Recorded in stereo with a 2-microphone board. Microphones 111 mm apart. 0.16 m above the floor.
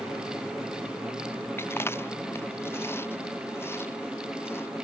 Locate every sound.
1.6 s chewing: 20° left (ahead or behind)